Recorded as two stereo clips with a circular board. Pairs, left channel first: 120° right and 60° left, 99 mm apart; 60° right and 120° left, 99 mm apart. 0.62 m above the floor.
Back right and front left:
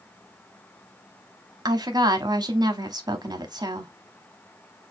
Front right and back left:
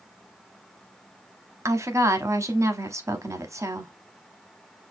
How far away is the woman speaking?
About 0.9 m.